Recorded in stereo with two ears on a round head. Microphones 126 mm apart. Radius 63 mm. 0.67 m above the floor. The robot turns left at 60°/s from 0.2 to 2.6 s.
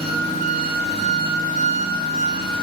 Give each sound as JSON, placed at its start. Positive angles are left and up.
{"t": 0.0, "sound": "an engine running", "azimuth_deg": -40, "distance_m": 1.4}